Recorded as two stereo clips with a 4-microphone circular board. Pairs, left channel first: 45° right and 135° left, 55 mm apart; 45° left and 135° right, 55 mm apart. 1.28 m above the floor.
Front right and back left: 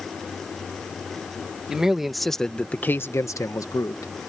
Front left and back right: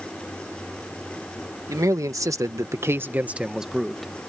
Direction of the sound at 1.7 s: 145° right.